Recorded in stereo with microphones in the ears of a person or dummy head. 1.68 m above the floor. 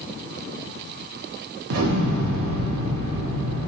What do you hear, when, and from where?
1.7 s an explosion: 65° right (ahead or behind), 0.7 m